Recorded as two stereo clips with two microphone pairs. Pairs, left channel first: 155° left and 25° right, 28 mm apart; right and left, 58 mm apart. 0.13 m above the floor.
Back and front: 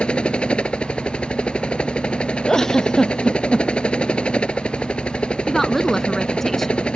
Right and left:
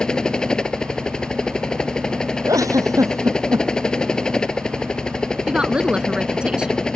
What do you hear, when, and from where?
0.0 s a helicopter: 165° right
2.5 s a giggle: 90° left
5.5 s a woman speaking: 105° left